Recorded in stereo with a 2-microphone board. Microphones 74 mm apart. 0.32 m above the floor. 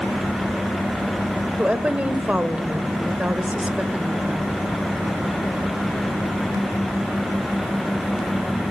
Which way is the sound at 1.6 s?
20° right (ahead or behind).